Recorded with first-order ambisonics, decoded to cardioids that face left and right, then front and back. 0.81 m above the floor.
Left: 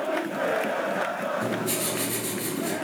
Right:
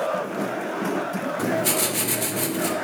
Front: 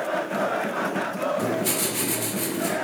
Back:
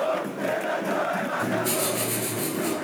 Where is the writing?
75° right, 1.9 m.